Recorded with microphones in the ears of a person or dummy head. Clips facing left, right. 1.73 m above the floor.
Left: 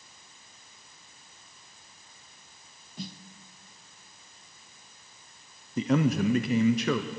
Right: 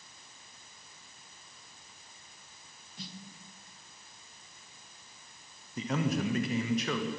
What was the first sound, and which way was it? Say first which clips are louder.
A snare drum: left 6 dB; 55° left (ahead or behind).